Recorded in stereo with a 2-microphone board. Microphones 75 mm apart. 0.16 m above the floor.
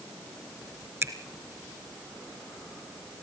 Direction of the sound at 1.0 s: 30° right (ahead or behind).